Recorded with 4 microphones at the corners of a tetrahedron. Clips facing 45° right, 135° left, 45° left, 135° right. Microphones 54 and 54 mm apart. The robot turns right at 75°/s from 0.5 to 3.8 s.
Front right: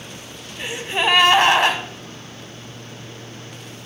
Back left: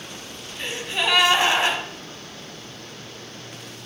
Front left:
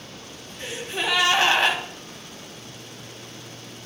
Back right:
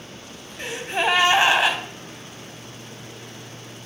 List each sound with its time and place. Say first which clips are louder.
0.6 s a gasp: front right 4 dB, back right 5 dB; 130° right, 1.1 m; by 1.8 s 40° right, 1.1 m